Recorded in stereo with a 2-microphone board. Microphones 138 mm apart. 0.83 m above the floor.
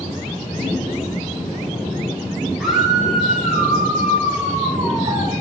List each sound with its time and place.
2.6 s a scream: centre (ahead or behind), 6.5 m; by 5.3 s 30° right (ahead or behind), 5 m